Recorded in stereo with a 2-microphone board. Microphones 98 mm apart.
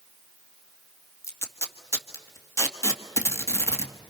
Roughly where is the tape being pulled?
Left.